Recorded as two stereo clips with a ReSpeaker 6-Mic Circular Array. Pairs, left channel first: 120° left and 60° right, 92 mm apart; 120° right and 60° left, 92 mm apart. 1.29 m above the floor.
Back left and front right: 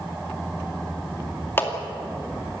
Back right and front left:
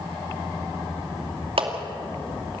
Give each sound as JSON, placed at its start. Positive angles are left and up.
{"t": 1.6, "sound": "a clap", "azimuth_deg": 55, "distance_m": 2.5}